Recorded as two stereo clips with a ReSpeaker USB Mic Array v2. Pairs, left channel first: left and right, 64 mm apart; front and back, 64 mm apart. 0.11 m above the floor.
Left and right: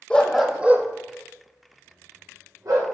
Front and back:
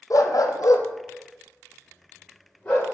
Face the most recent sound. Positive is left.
turn(degrees=-70)